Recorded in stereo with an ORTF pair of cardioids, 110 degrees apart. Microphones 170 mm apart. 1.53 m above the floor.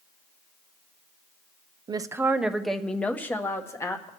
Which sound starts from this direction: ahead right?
A woman speaking, at 1.9 s.